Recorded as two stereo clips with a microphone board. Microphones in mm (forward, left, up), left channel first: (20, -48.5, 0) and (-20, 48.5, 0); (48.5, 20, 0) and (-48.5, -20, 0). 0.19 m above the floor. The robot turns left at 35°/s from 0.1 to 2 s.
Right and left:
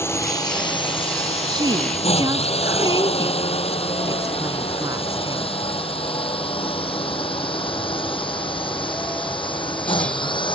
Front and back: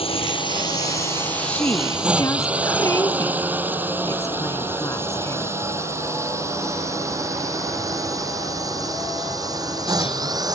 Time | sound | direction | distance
0.0 | a drone | straight ahead | ?
1.5 | a woman speaking | 90° left | ?